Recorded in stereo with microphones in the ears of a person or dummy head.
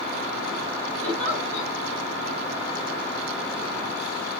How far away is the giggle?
About 3 m.